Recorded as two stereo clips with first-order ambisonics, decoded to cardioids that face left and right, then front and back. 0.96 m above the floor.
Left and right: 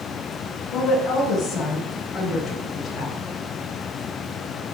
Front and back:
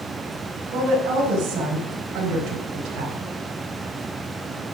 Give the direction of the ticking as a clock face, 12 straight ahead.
No ticking in this recording.